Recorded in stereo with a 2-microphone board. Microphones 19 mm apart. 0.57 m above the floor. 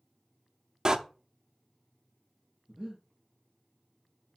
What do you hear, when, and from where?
0.8 s a door slam: 45° right (ahead or behind), 0.6 m
2.7 s breathing: 20° right (ahead or behind), 4 m